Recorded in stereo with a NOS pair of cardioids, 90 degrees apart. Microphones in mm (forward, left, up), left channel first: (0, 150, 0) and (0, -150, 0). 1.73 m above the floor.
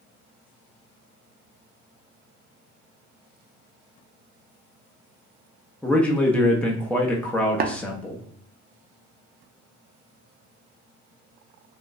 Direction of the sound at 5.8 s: 5° left.